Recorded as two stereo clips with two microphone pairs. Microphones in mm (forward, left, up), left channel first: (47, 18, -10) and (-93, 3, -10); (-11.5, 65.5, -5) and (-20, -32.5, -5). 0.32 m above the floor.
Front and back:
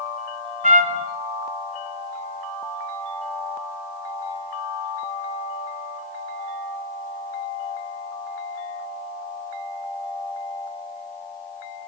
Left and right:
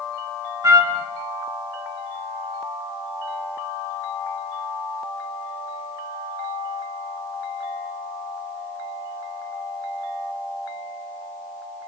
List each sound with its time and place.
0.6 s a trumpet: 155° right, 1.6 m